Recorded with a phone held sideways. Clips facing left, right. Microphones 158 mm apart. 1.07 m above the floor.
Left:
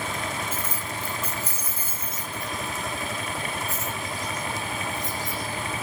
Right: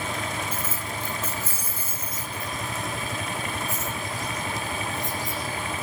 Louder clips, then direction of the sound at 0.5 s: Even; 15° right (ahead or behind).